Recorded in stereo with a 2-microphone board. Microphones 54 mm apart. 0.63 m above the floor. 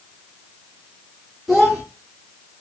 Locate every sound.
1.5 s a child speaking: 5° left (ahead or behind), 0.6 m